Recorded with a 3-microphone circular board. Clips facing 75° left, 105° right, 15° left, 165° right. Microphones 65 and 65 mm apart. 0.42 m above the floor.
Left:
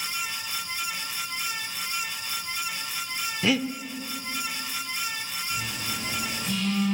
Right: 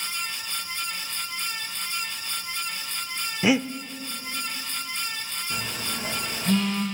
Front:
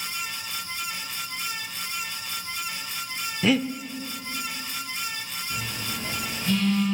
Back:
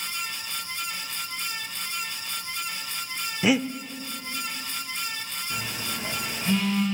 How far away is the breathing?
About 0.5 m.